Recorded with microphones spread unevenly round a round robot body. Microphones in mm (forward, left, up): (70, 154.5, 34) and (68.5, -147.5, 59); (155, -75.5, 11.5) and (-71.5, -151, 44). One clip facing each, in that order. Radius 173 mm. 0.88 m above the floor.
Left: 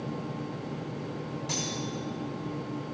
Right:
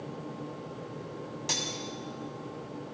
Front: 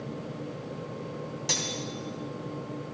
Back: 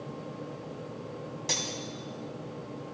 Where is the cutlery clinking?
70° right, 4 m.